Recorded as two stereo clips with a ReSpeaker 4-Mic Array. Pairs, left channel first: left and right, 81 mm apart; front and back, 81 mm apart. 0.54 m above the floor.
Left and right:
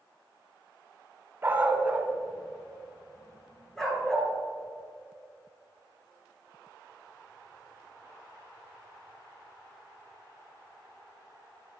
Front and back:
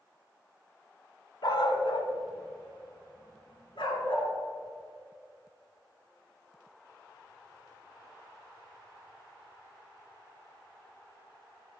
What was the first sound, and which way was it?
A dog barking, 25° right.